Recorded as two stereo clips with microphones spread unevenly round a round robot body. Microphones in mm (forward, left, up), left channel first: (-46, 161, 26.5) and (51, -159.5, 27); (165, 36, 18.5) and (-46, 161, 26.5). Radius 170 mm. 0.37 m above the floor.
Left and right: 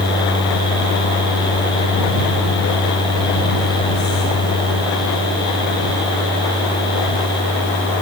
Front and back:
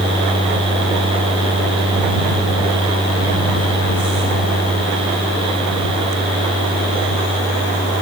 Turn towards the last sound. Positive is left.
No sound to turn to.